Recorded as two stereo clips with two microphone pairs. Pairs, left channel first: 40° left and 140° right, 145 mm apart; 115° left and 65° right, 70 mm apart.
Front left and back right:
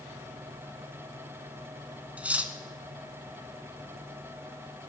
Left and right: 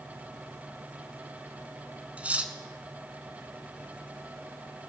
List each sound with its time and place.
2.2 s cutlery clinking: 75° right, 0.9 m